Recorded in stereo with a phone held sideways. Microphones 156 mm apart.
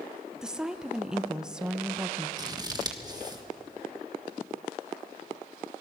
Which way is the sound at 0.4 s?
5° right (ahead or behind).